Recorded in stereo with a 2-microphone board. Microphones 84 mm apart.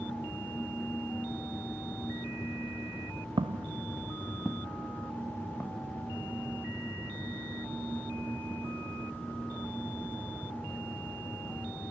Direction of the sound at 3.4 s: 80° right.